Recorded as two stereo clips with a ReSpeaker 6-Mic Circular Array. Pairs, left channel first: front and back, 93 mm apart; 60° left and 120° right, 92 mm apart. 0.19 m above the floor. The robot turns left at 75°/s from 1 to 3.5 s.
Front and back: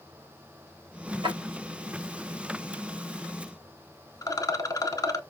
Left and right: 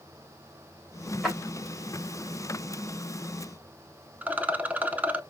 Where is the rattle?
50° right, 0.5 m.